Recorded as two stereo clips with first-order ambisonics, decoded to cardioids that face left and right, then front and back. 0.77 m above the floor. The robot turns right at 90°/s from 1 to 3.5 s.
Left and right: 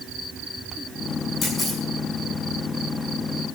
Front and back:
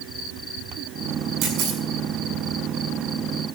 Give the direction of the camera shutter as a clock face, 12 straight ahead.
7 o'clock.